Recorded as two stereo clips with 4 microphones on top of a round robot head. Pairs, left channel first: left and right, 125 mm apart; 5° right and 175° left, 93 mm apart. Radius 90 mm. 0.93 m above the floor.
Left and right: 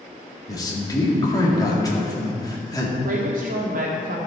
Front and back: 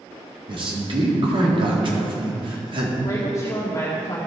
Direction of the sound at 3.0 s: 70° right.